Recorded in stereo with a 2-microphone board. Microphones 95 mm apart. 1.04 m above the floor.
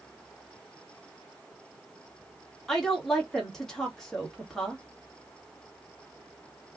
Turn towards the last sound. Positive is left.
turn(degrees=5)  # may be behind; listen again after turning